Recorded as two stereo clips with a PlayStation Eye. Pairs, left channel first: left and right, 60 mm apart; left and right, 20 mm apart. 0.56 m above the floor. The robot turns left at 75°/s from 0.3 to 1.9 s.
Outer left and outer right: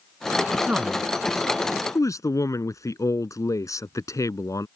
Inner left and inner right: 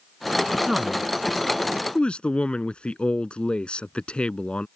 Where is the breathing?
No breathing in this recording.